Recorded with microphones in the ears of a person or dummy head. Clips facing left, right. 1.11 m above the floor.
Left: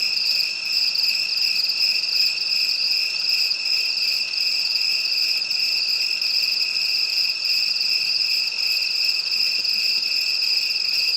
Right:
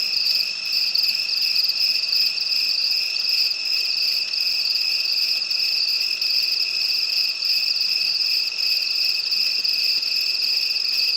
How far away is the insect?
About 1.1 m.